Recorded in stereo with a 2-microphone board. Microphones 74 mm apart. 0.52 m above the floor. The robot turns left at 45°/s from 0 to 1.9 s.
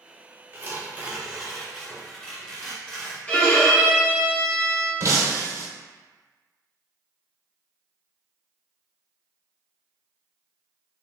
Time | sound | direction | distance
0.5 | tearing paper | 130° right | 0.7 m
3.3 | a violin | 15° left (ahead or behind) | 0.7 m
5.0 | breaking glass | 45° right (ahead or behind) | 0.7 m